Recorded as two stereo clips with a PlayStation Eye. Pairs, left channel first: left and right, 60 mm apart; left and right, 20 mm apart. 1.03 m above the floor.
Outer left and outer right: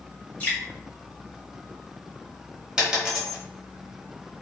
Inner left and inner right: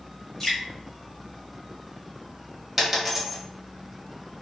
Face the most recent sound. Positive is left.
turn(degrees=-15)  # may be behind; listen again after turning